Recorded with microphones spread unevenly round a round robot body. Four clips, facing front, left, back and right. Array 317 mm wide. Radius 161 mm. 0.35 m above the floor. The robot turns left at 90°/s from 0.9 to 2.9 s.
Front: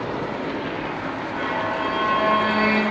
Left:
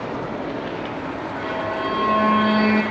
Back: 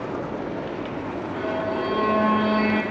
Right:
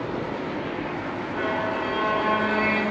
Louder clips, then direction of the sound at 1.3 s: Even, even; 135° right.